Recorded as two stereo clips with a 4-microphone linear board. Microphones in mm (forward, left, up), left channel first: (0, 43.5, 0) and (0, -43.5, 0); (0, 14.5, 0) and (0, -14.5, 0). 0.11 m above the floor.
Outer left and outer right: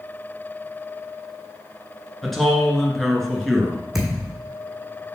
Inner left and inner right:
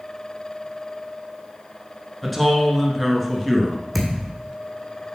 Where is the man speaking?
Centre (ahead or behind), 1.7 m.